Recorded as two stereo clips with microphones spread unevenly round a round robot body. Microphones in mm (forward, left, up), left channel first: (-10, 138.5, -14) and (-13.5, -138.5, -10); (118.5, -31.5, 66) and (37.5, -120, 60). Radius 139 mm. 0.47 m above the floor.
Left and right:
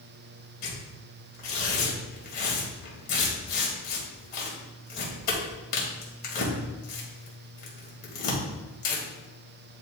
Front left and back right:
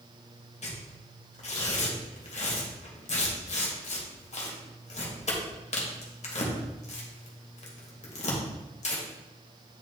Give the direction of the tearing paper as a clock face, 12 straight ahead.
11 o'clock.